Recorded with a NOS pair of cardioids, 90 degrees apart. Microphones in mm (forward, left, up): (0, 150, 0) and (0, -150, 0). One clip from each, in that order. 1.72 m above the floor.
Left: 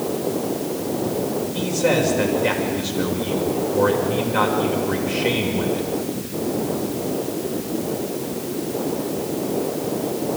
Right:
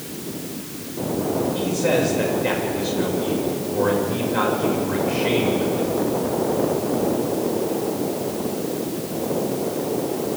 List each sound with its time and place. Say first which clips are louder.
1.5 s a man speaking: left 3 dB; 25° left, 7 m